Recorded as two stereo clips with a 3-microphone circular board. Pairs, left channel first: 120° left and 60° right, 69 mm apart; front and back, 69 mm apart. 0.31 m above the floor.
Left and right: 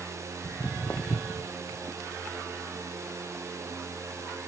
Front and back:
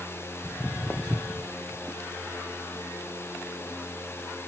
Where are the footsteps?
60° left, 0.9 m; by 4.5 s 120° left, 2.5 m.